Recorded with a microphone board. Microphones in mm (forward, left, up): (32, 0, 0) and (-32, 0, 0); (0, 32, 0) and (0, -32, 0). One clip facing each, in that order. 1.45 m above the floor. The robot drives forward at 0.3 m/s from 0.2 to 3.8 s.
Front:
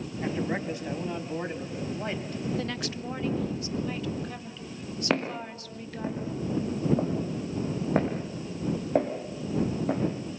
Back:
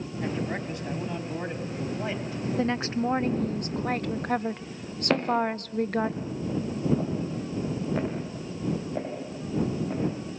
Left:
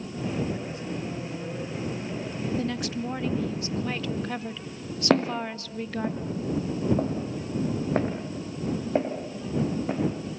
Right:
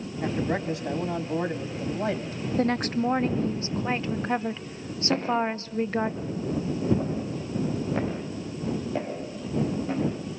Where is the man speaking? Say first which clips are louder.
Front 1 dB, right 3 dB; 80° right, 3.5 m; by 2.4 s 90° right, 3.5 m.